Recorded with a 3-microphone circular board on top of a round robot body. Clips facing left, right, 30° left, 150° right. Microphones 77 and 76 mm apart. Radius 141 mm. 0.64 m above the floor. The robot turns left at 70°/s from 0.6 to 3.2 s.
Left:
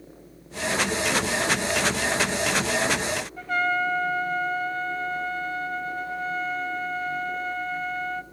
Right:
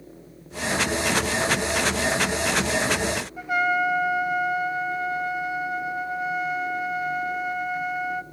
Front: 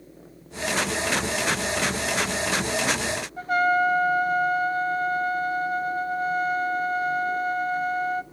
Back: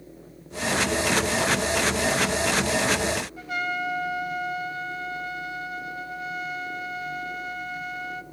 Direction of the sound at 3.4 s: 15° right.